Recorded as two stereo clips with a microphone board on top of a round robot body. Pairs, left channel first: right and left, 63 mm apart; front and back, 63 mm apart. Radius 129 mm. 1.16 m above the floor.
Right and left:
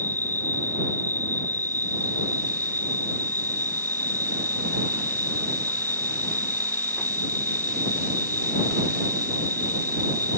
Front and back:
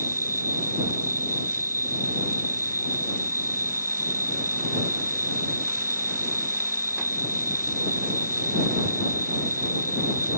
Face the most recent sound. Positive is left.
turn(degrees=-145)